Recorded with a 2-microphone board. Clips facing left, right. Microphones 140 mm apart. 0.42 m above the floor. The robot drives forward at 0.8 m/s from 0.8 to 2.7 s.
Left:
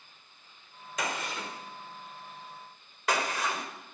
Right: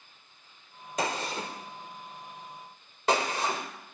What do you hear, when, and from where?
1.0 s a gunshot: 30° right (ahead or behind), 1.3 m